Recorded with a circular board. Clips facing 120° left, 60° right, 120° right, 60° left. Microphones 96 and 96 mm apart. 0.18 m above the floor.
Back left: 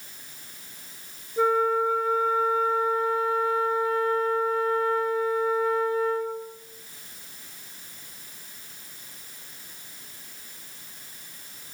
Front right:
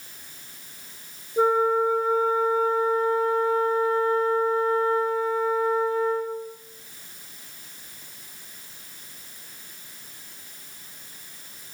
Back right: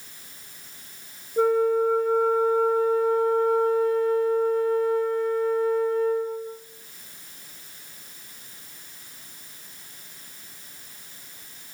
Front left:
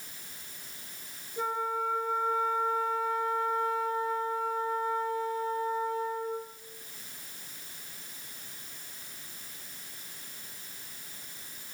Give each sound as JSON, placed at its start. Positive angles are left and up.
{"t": 1.4, "sound": "a flute", "azimuth_deg": -115, "distance_m": 2.5}